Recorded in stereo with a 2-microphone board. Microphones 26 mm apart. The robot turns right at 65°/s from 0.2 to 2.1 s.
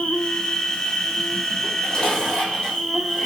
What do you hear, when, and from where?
0.0 s an insect: 45° left, 0.7 m; by 3.3 s 170° left, 0.7 m
1.6 s dishes clattering: 105° left, 1.6 m; by 3.3 s 135° left, 1.6 m